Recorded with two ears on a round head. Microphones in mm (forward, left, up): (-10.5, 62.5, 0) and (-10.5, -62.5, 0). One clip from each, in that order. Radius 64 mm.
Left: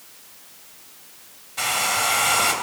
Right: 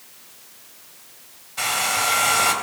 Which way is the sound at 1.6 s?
Centre (ahead or behind).